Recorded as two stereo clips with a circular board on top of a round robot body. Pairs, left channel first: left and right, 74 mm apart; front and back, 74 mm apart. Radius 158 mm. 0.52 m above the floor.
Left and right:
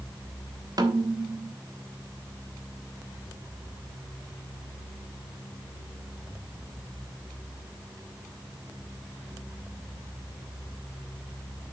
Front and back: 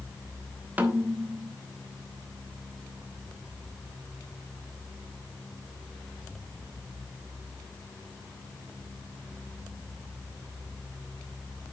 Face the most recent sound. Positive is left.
turn(degrees=-115)